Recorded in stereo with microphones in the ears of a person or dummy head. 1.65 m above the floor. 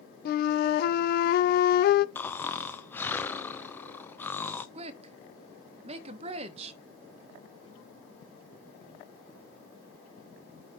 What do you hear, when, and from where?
0.2 s a flute: 50° left (ahead or behind), 0.5 m
2.1 s snoring: 15° left (ahead or behind), 0.6 m
4.8 s a woman speaking: 40° right (ahead or behind), 1.3 m